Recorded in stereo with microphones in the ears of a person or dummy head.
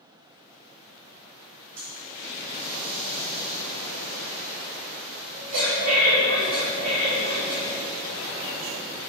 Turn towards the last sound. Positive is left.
turn(degrees=-45)  # may be behind; listen again after turning